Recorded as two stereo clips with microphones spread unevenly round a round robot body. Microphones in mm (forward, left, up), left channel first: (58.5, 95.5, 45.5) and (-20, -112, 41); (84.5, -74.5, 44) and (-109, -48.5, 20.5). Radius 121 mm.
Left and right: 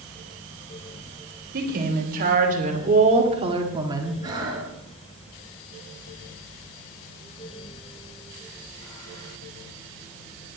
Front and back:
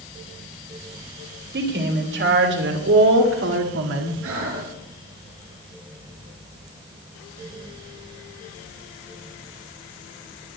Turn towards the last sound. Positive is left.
turn(degrees=175)